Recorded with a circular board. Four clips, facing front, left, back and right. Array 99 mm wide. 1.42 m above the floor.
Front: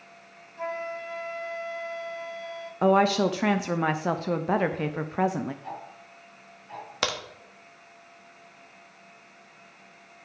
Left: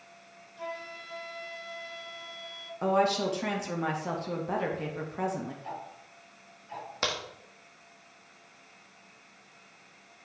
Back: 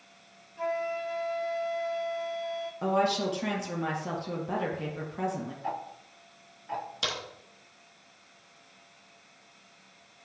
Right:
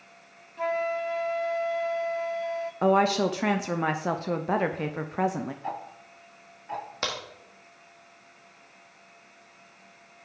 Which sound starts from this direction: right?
A flute, at 0.6 s.